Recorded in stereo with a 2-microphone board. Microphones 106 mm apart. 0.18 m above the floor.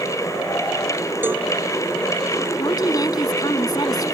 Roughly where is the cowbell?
Centre.